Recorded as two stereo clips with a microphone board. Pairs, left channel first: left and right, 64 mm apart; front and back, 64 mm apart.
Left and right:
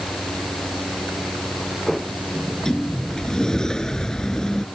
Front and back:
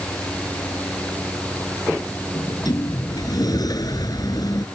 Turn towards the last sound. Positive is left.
turn(degrees=10)